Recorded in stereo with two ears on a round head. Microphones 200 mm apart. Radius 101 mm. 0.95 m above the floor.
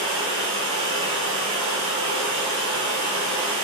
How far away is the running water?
About 0.9 m.